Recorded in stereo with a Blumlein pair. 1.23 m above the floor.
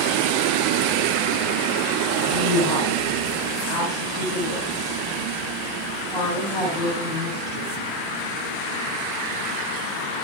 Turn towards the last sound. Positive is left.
turn(degrees=-5)